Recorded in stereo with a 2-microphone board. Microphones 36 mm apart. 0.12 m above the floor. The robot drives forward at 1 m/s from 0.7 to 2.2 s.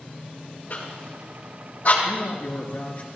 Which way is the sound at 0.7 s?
50° left (ahead or behind).